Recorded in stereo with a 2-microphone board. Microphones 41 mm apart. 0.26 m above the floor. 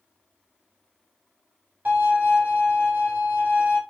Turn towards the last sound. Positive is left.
turn(degrees=-45)  # may be behind; listen again after turning